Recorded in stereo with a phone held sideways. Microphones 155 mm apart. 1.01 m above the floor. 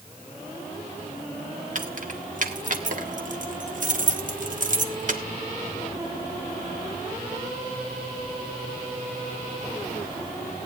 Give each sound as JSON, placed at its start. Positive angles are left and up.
{"t": 1.8, "sound": "keys jangling", "side_deg": -55, "distance_m": 1.5}